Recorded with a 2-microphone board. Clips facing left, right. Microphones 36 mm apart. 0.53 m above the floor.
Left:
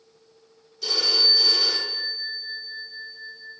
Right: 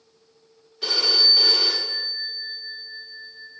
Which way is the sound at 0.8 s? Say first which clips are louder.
Right 2 dB; 40° right (ahead or behind).